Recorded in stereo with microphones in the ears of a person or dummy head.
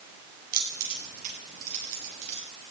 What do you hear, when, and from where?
0.5 s keys jangling: 50° right (ahead or behind), 5 m; by 2.4 s 35° right (ahead or behind), 6.5 m